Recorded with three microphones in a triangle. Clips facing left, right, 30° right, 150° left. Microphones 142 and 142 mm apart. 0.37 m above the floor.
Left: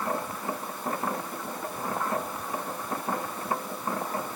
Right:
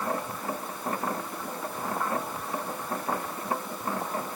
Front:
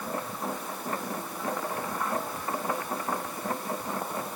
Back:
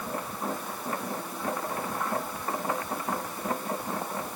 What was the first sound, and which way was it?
Only background noise.